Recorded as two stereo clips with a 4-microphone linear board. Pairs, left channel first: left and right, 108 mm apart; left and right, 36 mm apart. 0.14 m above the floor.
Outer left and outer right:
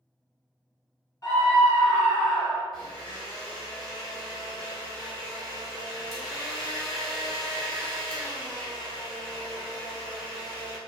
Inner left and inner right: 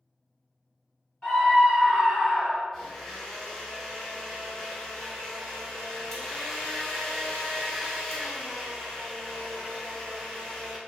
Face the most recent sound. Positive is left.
turn(degrees=0)  # may be behind; listen again after turning